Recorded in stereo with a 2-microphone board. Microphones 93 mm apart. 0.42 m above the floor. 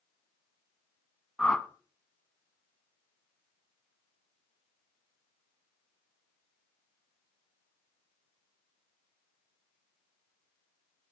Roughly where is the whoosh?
Centre.